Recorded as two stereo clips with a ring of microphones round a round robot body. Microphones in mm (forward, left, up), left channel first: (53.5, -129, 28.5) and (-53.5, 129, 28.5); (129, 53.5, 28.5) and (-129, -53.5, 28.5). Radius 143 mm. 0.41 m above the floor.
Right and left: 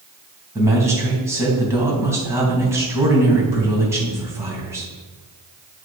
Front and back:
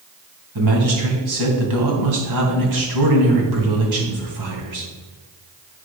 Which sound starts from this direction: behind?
A man speaking, at 0.6 s.